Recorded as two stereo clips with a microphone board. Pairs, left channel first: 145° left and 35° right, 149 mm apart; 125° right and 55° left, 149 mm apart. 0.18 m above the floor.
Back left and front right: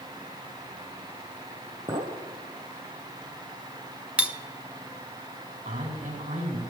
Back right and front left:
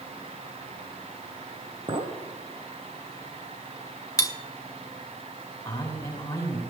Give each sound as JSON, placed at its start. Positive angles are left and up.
{"t": 1.9, "sound": "a clink", "azimuth_deg": 10, "distance_m": 1.6}
{"t": 4.2, "sound": "cutlery clinking", "azimuth_deg": -105, "distance_m": 0.7}
{"t": 5.7, "sound": "a man speaking", "azimuth_deg": -55, "distance_m": 8.5}